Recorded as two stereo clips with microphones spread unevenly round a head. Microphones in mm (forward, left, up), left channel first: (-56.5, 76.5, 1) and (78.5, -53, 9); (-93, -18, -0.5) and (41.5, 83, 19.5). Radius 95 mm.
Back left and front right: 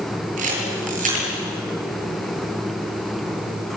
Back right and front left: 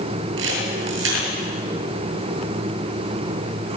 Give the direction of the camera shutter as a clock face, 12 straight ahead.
12 o'clock.